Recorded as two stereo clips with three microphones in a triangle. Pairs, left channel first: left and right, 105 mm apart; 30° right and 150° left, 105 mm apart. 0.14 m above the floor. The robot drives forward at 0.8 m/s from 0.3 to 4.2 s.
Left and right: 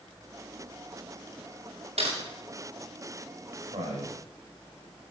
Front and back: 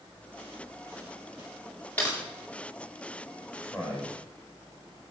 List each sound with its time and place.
2.0 s typing on a keyboard: 105° right, 9.5 m
3.6 s a man speaking: 115° right, 9 m; by 4.2 s 120° right, 9.5 m